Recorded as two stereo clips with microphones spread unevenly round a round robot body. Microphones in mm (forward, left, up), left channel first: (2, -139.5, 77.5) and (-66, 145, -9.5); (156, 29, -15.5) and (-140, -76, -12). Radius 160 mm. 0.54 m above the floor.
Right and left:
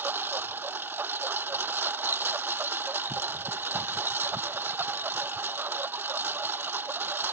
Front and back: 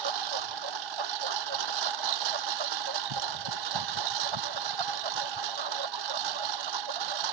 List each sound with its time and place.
0.0 s a lawn mower: 170° right